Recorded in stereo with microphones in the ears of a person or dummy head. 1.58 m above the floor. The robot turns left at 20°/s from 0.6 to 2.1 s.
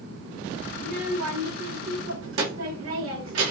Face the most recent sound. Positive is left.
turn(degrees=-75)  # may be behind; listen again after turning